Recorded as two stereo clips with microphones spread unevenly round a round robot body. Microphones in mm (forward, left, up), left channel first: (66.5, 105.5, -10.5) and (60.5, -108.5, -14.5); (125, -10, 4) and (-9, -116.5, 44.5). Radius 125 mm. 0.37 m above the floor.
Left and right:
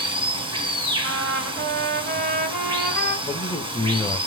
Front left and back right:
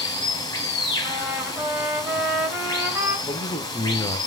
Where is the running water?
25° right, 2.5 m.